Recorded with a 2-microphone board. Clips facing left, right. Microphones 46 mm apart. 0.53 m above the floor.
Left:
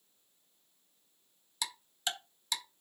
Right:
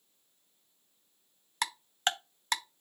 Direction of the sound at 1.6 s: 50° right (ahead or behind).